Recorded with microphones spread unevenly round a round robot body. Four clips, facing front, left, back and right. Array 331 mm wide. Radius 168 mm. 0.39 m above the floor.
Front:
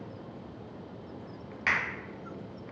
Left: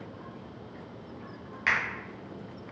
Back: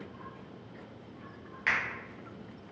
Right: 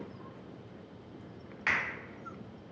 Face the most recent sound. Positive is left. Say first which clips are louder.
# left 4 dB, front 1 dB
turn(degrees=35)